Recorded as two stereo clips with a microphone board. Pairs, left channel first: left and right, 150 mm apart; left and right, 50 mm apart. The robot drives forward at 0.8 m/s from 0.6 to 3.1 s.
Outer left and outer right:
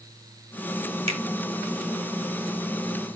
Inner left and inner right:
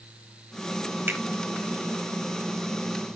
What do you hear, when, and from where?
1.1 s a finger snap: 40° right (ahead or behind), 1.4 m